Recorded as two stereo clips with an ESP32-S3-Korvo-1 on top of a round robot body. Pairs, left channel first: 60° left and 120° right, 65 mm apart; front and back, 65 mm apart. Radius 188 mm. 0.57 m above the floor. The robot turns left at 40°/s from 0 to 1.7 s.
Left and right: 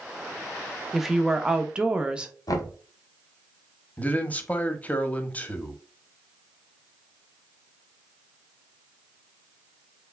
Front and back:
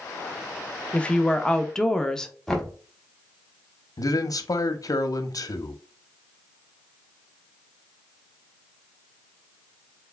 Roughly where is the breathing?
I don't hear breathing.